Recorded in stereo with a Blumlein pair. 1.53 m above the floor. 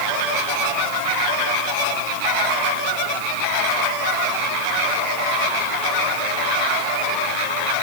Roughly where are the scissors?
I don't hear scissors.